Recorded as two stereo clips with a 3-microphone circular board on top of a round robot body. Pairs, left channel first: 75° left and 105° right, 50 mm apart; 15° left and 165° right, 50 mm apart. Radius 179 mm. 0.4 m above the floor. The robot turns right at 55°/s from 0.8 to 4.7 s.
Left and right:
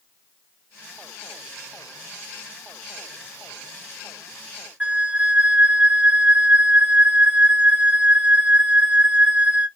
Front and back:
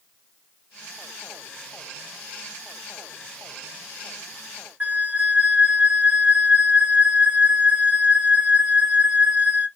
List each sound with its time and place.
4.8 s a flute: 145° right, 1.0 m